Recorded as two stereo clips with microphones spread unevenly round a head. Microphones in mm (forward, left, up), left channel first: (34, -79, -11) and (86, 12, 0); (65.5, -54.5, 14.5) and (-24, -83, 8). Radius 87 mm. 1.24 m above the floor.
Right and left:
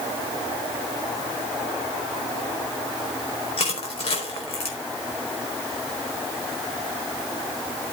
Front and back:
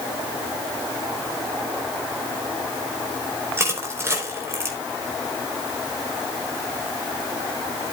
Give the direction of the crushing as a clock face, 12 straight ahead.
3 o'clock.